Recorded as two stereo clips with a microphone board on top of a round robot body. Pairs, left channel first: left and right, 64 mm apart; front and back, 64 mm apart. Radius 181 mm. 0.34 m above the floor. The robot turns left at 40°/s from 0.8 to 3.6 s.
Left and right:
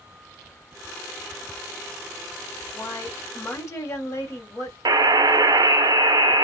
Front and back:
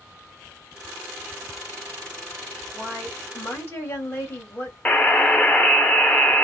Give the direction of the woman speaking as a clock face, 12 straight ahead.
9 o'clock.